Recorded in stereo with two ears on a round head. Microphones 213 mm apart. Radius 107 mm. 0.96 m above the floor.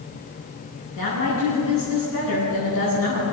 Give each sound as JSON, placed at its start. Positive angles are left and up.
{"t": 0.9, "sound": "a woman speaking", "side_deg": 60, "distance_m": 9.5}